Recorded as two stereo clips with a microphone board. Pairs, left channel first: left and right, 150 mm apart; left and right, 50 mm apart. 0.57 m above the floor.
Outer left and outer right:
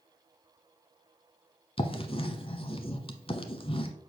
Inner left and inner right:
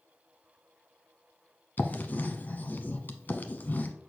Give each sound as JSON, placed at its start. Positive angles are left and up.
{"t": 1.8, "sound": "writing", "side_deg": 40, "distance_m": 0.9}